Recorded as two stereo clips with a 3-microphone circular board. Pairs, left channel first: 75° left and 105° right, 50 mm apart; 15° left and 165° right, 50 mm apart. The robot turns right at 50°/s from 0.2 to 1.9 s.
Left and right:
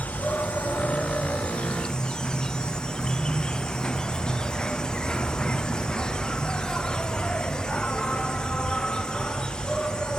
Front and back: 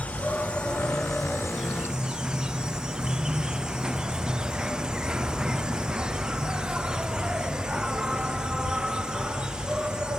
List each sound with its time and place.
0.0 s an insect: 50° left; by 10.2 s 135° left